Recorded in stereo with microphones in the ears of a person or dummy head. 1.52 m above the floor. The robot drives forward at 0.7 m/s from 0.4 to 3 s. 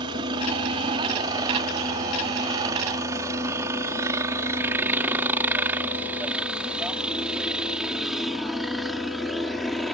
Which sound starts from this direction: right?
A helicopter, at 0.0 s.